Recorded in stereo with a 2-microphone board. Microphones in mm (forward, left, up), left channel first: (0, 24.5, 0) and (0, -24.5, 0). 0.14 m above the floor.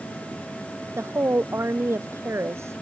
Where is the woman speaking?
70° right (ahead or behind).